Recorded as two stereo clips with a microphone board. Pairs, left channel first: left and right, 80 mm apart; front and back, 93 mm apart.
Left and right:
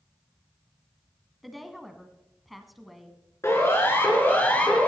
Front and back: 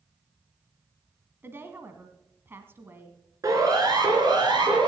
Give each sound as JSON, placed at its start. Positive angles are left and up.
{"t": 1.4, "sound": "a woman speaking", "azimuth_deg": 180, "distance_m": 1.4}
{"t": 3.4, "sound": "a siren", "azimuth_deg": 135, "distance_m": 3.5}